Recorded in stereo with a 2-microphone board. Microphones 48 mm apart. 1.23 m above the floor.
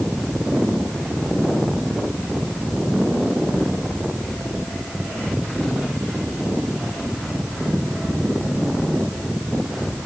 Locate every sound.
Only background noise.